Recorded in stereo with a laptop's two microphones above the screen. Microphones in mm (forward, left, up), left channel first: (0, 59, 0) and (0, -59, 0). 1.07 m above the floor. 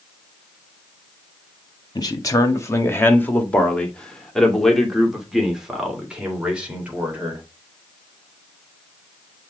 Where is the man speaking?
35° left (ahead or behind), 1.8 m; by 7.4 s 15° right (ahead or behind), 4 m.